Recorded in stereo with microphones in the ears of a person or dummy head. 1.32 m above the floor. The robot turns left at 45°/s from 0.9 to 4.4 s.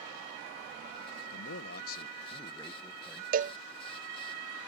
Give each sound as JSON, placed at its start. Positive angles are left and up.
{"t": 1.3, "sound": "a man speaking", "azimuth_deg": 75}
{"t": 3.3, "sound": "a cowbell", "side_deg": -40}